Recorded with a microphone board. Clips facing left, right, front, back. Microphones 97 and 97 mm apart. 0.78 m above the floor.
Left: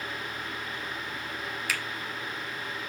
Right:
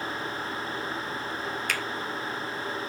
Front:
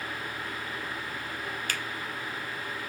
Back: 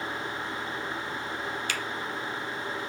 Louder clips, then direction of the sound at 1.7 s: Even, back 2 dB; 5° left.